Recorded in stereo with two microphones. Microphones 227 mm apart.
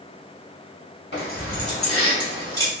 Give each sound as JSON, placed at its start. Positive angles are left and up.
{"t": 1.1, "sound": "keys jangling", "side_deg": 50, "distance_m": 1.3}